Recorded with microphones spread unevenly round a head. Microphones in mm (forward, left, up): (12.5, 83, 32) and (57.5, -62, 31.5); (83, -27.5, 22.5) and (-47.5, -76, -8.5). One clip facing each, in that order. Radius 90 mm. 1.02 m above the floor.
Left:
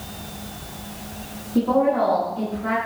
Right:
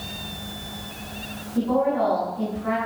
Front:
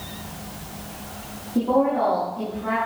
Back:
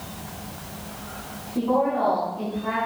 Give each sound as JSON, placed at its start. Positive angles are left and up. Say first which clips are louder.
{"t": 1.6, "sound": "a woman speaking", "louder": "left 3 dB, front 2 dB", "azimuth_deg": 90, "distance_m": 8.0}